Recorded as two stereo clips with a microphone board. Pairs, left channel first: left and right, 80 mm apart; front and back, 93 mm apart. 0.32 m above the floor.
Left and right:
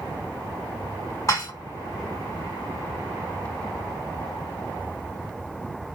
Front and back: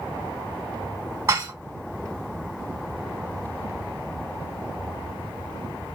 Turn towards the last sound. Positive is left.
turn(degrees=135)